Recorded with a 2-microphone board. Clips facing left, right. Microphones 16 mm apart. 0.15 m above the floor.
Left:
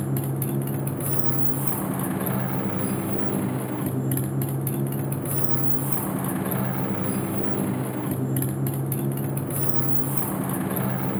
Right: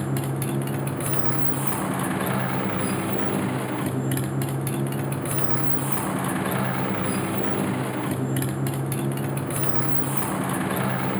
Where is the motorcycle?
35° right (ahead or behind).